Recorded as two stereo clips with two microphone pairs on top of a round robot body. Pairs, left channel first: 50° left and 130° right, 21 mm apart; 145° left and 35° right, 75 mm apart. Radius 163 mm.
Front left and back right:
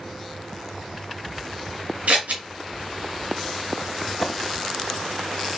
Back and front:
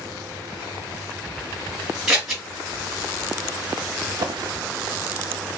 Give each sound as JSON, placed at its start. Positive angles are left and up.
{"t": 2.1, "sound": "scissors", "azimuth_deg": -120, "distance_m": 1.4}
{"t": 4.1, "sound": "a drawer", "azimuth_deg": -45, "distance_m": 0.6}